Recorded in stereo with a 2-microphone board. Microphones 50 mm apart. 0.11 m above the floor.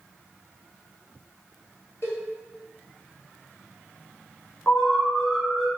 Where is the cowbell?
55° left (ahead or behind), 1.5 m.